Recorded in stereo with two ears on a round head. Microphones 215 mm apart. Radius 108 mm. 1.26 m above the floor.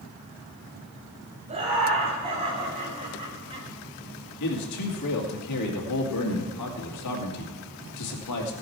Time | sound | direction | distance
1.5 | laughter | 25° right (ahead or behind) | 7 m
4.4 | a man speaking | 80° left | 2.5 m